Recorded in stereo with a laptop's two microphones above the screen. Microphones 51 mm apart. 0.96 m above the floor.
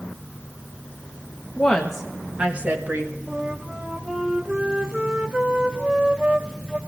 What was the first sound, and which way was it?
A woman speaking, 15° left (ahead or behind).